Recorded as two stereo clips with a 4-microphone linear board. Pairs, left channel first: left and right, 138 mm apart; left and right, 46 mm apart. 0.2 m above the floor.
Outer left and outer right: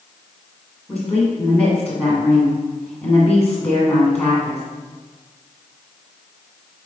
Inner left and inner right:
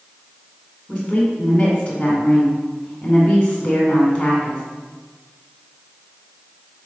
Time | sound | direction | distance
0.9 | a woman speaking | 10° left (ahead or behind) | 1.9 m